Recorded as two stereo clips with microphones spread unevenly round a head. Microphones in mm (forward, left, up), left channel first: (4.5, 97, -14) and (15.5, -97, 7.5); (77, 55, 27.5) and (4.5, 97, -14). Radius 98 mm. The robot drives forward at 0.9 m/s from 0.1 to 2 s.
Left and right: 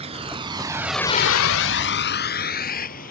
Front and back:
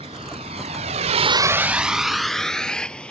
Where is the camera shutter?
I don't hear a camera shutter.